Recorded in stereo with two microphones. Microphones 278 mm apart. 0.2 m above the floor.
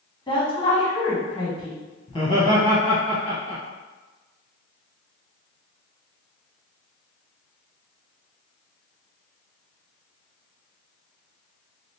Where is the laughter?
20° left (ahead or behind), 1.0 m.